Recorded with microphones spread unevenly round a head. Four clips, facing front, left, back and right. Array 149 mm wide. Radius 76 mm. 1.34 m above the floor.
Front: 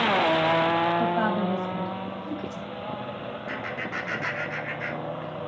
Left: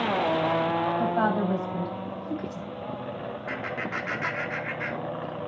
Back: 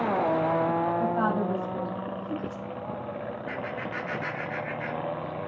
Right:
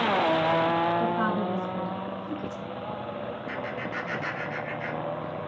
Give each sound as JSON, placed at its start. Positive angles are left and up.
{"t": 1.0, "sound": "a woman speaking", "azimuth_deg": 50, "distance_m": 9.0}
{"t": 3.5, "sound": "laughter", "azimuth_deg": 80, "distance_m": 4.0}